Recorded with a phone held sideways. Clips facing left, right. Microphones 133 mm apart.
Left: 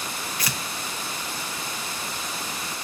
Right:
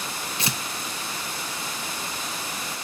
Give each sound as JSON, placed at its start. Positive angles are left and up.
{"t": 0.4, "sound": "tearing paper", "side_deg": -25, "distance_m": 0.7}